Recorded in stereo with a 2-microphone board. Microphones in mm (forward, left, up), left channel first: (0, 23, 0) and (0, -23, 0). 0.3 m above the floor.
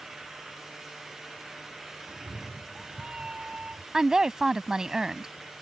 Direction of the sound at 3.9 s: 15° right (ahead or behind).